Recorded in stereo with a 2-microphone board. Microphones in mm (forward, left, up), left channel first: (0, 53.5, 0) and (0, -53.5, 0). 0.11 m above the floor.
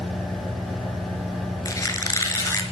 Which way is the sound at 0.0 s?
Centre (ahead or behind).